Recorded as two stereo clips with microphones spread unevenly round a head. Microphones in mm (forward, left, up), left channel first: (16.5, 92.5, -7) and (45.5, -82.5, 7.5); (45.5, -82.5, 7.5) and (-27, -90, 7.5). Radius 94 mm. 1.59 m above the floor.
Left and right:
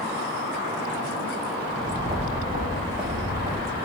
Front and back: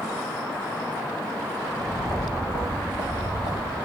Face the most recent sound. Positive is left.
turn(degrees=-15)